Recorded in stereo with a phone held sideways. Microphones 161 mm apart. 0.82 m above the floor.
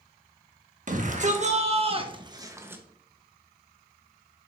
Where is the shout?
50° right (ahead or behind), 1.5 m; by 2.8 s 10° right (ahead or behind), 1.0 m.